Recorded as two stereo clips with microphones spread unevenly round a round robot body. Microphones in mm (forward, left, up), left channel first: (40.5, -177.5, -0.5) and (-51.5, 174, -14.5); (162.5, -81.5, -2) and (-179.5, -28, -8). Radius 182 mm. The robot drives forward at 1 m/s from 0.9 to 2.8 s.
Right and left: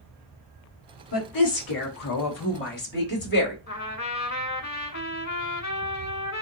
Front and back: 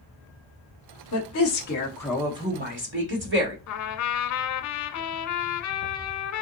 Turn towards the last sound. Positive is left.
turn(degrees=-20)